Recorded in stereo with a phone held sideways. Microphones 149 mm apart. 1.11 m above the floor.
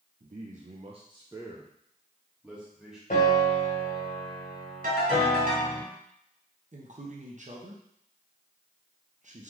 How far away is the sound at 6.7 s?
About 0.8 m.